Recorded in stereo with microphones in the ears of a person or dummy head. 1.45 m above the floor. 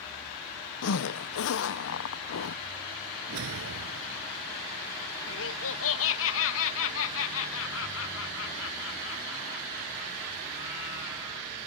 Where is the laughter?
75° left (ahead or behind).